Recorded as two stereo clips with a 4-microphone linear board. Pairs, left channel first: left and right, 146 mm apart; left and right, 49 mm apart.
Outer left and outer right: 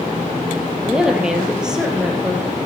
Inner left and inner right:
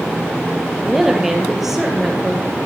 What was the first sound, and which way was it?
A woman speaking, 5° right (ahead or behind).